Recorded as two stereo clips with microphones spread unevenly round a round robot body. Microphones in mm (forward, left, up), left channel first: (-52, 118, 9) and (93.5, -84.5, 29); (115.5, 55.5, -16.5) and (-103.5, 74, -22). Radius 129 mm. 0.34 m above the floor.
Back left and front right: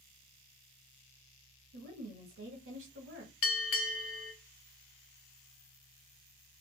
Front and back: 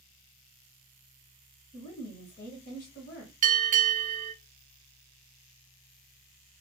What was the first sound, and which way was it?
A woman speaking, 40° right.